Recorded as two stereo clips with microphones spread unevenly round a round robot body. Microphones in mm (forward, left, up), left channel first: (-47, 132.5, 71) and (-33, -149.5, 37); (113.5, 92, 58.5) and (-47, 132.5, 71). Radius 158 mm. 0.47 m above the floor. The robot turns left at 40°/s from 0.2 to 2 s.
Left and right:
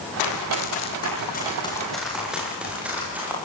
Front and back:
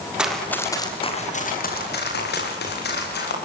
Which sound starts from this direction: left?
Running footsteps, at 0.2 s.